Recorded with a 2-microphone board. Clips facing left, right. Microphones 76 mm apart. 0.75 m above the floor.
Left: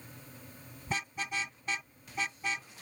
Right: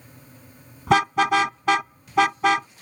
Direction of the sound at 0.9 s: 85° right.